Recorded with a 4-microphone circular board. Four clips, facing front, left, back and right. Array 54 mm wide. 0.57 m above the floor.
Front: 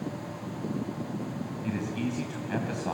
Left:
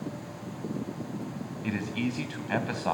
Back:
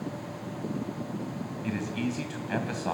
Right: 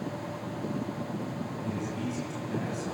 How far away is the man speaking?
About 3.5 m.